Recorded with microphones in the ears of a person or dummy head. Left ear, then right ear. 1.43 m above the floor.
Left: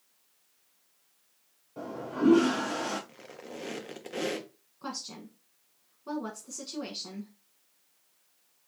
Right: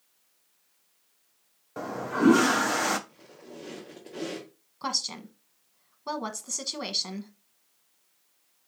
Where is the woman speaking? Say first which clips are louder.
Right 9 dB; 60° right (ahead or behind), 1.0 m.